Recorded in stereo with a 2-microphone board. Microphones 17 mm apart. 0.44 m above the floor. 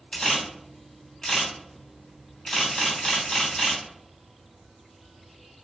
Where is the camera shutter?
45° left (ahead or behind), 1.5 m.